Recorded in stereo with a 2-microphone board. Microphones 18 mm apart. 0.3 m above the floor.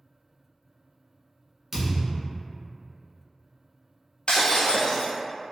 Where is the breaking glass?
75° left (ahead or behind), 1.1 m.